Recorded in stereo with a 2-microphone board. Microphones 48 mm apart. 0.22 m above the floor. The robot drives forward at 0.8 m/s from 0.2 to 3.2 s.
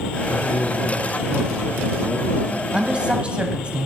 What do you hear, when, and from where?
0.3 s a man speaking: 25° left (ahead or behind), 2.5 m; by 3.7 s 15° left (ahead or behind), 4.5 m
2.7 s a woman speaking: 25° right (ahead or behind), 1.1 m